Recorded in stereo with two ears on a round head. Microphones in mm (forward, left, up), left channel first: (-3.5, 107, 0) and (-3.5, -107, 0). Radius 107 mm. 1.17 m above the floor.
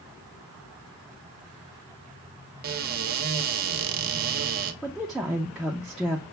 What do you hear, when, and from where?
2.6 s a cupboard door: 40° right (ahead or behind), 0.6 m
4.8 s a woman speaking: centre (ahead or behind), 0.5 m